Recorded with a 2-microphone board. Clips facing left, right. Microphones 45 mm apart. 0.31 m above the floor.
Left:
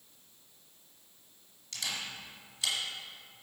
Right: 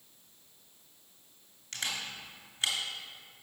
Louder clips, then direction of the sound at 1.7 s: Right 1 dB; 35° right (ahead or behind).